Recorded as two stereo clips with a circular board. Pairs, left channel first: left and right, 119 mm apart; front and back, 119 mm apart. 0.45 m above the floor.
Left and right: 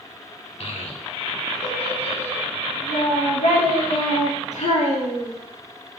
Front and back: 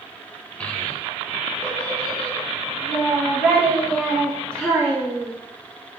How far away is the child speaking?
About 0.9 m.